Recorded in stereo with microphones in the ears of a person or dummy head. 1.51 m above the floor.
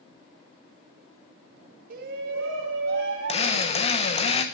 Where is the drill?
40° left (ahead or behind), 1.0 m.